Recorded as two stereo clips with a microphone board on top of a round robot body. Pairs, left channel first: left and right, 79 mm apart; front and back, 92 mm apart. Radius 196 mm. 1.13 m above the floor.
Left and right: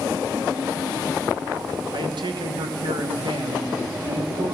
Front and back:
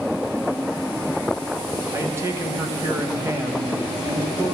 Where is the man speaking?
115° right, 1.3 m.